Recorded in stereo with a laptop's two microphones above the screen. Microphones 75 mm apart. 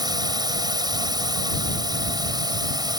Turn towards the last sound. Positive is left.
turn(degrees=-65)  # may be behind; listen again after turning